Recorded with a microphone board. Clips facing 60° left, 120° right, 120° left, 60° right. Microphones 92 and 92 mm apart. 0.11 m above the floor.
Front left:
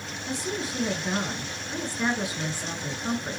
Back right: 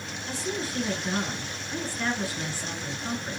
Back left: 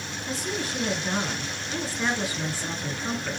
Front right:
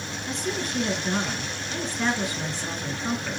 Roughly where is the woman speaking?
Ahead left.